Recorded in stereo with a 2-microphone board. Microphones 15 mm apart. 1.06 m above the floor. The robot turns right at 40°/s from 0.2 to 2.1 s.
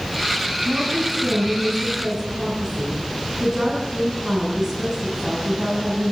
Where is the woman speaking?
75° right, 10 m; by 6.1 s 15° right, 10 m.